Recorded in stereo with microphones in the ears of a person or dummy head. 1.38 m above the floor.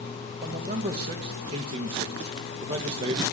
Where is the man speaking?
30° right (ahead or behind), 0.8 m.